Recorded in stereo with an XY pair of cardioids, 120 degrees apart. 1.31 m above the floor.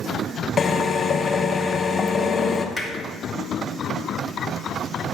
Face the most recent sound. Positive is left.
turn(degrees=0)